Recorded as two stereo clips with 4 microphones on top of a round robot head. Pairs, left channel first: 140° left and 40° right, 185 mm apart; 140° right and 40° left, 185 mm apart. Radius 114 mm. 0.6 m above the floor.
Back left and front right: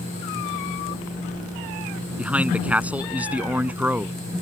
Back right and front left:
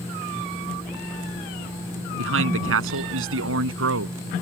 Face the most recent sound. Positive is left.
turn(degrees=45)